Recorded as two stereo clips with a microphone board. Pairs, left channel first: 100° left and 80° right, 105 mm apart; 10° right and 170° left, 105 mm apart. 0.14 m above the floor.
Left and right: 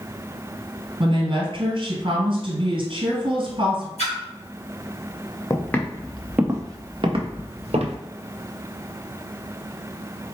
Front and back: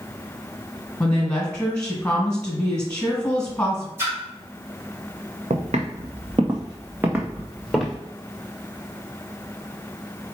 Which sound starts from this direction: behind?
Footsteps, at 5.5 s.